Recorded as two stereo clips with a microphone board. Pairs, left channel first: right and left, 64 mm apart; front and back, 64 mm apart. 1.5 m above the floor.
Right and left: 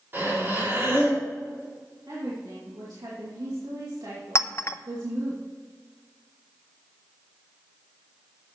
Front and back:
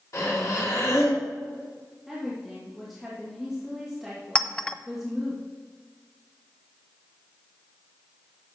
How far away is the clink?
About 0.5 m.